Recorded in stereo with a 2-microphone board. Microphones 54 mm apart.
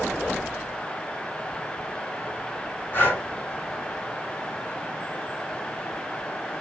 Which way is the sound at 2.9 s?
35° left (ahead or behind).